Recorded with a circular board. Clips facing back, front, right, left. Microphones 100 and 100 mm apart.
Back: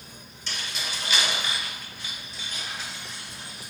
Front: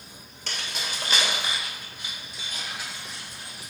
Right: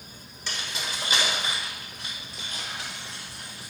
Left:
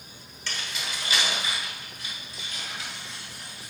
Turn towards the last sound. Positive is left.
turn(degrees=-85)